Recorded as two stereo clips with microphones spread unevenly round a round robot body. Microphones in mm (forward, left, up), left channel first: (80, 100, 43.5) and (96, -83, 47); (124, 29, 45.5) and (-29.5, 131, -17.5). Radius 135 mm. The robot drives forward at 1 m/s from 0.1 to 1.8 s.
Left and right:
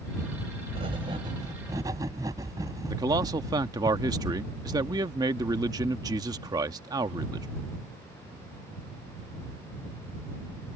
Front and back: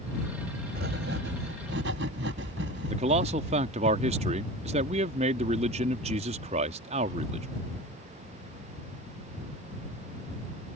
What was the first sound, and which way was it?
Writing, 155° right.